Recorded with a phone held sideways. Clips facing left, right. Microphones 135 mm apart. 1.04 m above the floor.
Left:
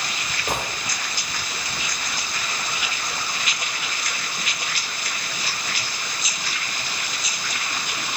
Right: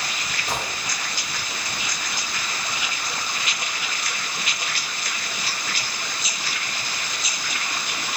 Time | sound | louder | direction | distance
0.5 | a gunshot | left 2 dB | 50° left (ahead or behind) | 2.5 m